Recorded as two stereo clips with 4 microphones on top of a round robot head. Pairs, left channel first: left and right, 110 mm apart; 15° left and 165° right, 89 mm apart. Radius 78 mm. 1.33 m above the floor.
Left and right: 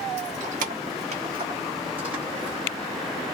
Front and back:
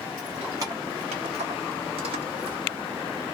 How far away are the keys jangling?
About 0.7 m.